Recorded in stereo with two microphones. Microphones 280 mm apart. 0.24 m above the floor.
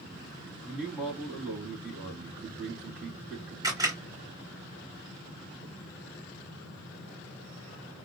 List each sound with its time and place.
0.7 s a man speaking: 5° right (ahead or behind), 2 m
3.6 s a camera shutter: 10° right (ahead or behind), 3 m